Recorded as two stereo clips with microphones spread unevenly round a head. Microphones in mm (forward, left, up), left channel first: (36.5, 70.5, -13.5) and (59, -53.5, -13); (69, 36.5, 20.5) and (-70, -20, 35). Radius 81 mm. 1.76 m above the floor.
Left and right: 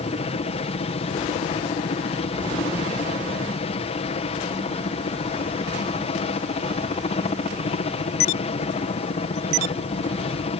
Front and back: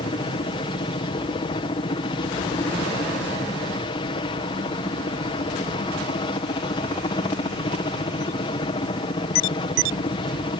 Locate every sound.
0.0 s a helicopter: 75° left